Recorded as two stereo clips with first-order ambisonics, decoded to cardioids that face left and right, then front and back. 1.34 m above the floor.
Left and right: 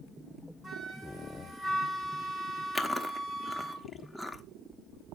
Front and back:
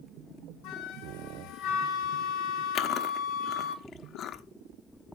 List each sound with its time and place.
0.6 s a flute: 30° right, 3 m
2.8 s chewing: 5° left, 1.0 m